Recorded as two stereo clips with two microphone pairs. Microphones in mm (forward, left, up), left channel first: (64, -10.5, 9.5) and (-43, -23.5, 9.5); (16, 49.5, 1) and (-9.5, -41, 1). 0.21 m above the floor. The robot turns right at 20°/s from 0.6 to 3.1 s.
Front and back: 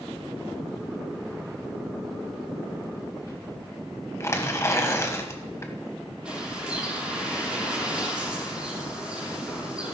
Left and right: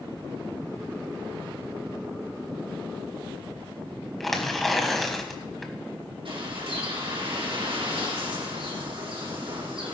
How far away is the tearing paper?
About 1.4 m.